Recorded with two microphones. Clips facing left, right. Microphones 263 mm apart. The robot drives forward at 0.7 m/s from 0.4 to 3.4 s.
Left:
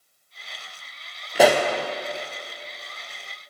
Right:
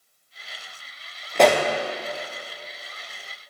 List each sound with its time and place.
1.4 s a pop: 5° left (ahead or behind), 0.5 m